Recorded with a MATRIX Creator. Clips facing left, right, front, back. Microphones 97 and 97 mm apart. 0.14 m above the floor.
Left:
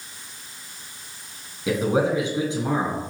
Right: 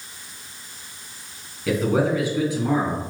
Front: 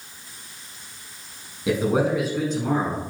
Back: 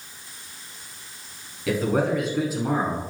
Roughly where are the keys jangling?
No keys jangling in this recording.